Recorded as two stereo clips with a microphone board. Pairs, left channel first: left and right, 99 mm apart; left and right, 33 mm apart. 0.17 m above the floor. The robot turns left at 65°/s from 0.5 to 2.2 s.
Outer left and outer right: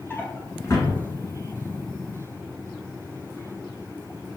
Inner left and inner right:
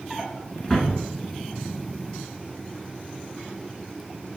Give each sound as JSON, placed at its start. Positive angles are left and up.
{"t": 0.1, "sound": "a drawer", "side_deg": 20, "distance_m": 0.9}